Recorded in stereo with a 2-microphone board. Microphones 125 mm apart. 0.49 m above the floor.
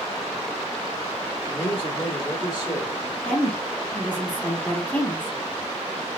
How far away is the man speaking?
About 1.7 m.